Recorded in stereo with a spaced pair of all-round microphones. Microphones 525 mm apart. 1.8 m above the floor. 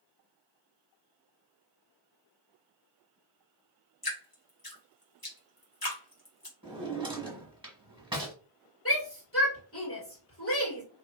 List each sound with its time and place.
4.0 s dripping: 40° left (ahead or behind), 1.4 m
6.6 s a drawer: 10° right (ahead or behind), 1.3 m
8.8 s a shout: 25° left (ahead or behind), 2 m